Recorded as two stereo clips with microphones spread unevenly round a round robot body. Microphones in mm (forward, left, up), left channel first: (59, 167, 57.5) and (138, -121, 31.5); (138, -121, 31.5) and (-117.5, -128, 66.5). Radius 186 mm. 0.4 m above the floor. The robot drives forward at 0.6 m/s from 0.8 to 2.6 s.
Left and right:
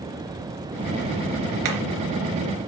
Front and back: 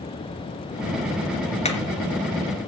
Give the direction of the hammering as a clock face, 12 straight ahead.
2 o'clock.